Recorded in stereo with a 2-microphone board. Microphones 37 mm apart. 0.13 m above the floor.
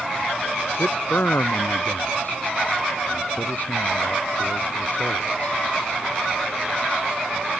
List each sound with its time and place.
0.7 s a man speaking: 65° left (ahead or behind); by 5.6 s 45° left (ahead or behind)